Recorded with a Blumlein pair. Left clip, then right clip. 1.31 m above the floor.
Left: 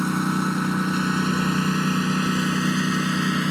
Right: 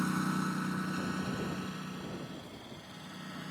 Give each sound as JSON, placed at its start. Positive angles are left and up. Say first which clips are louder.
{"t": 0.0, "sound": "a lawn mower", "louder": "left 10 dB", "azimuth_deg": 25}